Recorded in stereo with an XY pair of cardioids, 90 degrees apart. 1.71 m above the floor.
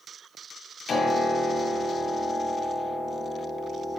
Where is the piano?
55° left, 1.8 m.